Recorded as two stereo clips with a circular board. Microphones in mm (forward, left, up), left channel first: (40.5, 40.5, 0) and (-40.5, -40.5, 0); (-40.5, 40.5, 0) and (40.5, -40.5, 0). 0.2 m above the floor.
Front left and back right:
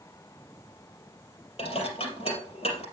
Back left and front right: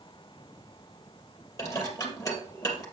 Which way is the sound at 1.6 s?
70° left.